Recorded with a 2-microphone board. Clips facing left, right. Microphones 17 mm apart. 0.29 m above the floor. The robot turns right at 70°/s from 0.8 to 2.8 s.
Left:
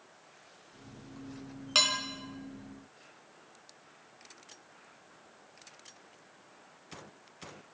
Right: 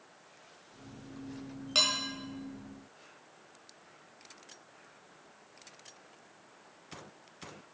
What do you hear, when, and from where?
1.8 s dishes clattering: 10° left (ahead or behind), 0.9 m; by 2.0 s 20° left (ahead or behind), 0.9 m